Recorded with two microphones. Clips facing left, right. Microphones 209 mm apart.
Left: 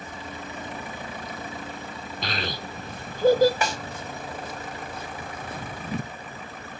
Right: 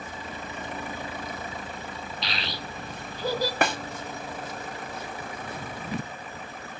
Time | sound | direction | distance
2.2 | a child speaking | 50° left (ahead or behind) | 0.7 m
3.6 | a snare drum | 60° right (ahead or behind) | 0.6 m